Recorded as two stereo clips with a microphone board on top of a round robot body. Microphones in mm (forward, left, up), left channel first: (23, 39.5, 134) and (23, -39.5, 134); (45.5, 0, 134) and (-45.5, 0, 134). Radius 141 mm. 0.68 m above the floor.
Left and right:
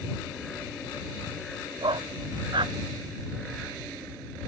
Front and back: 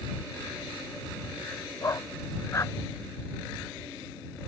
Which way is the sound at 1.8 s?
60° right.